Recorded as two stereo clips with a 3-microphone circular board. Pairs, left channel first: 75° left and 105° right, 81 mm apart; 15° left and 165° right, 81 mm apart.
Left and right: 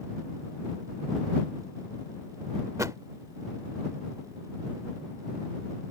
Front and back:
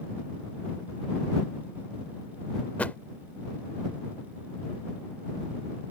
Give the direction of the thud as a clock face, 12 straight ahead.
2 o'clock.